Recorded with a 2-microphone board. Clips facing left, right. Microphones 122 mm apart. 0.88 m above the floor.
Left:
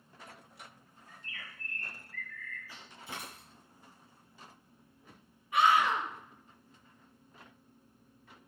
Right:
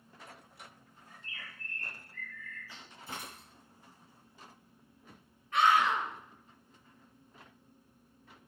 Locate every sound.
1.1 s a bird: 30° right (ahead or behind), 4.5 m
3.1 s a dropped coin: 40° right (ahead or behind), 5.5 m
5.5 s a scream: 10° left (ahead or behind), 5 m